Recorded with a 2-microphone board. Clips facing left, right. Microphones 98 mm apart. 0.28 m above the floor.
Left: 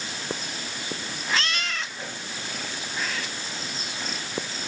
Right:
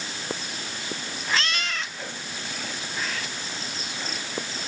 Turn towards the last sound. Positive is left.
No sound to turn to.